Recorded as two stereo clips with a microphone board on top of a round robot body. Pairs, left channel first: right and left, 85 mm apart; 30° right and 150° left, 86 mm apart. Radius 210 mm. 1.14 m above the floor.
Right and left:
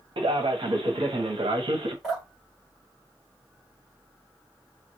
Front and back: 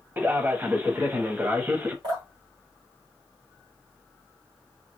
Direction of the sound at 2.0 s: Straight behind.